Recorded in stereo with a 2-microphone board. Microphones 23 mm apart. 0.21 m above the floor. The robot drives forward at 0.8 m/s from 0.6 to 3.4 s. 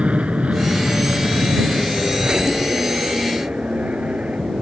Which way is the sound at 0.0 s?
55° right (ahead or behind).